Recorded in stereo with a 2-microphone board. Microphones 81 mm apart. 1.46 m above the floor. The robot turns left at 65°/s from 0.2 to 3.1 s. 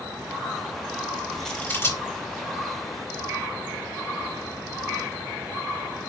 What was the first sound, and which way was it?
Scissors, centre (ahead or behind).